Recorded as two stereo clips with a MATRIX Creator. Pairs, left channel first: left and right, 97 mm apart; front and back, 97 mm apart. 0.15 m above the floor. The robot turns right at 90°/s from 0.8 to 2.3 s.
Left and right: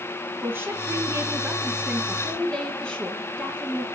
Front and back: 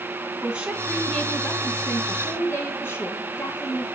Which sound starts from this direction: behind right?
A woman speaking, at 0.4 s.